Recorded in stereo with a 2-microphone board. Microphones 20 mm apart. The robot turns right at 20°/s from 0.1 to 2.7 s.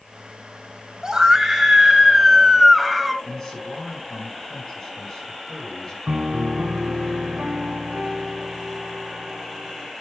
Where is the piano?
85° right, 1.2 m.